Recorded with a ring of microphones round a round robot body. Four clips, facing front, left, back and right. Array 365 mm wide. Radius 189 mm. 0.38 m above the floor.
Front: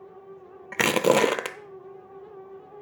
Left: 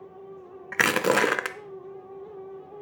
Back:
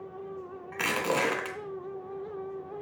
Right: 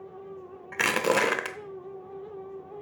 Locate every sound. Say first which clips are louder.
0.7 s crushing: left 2 dB, front 8 dB; 20° left, 0.7 m